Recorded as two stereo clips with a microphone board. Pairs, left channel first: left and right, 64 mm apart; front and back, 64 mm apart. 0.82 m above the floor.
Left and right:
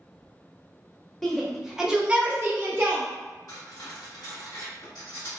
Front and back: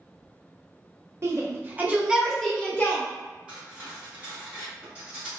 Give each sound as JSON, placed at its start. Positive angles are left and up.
{"t": 1.2, "sound": "a shout", "azimuth_deg": 175, "distance_m": 0.7}
{"t": 3.5, "sound": "cutlery clinking", "azimuth_deg": 110, "distance_m": 1.3}